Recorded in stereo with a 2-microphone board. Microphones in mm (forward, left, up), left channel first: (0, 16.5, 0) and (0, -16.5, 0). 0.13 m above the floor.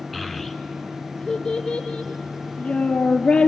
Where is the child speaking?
Centre (ahead or behind), 1.0 m; by 3.5 s 35° left (ahead or behind), 2.5 m.